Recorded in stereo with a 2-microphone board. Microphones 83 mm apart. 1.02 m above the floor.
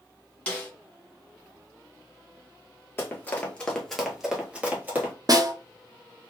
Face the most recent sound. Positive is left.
turn(degrees=-50)  # may be behind; listen again after turning